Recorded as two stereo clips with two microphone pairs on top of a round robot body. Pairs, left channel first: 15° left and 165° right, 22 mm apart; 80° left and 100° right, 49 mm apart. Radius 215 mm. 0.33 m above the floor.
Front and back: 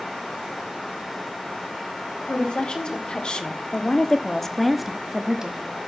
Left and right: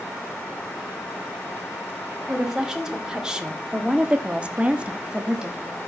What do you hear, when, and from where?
2.3 s a woman speaking: 20° right, 3 m; by 5.8 s straight behind, 1.8 m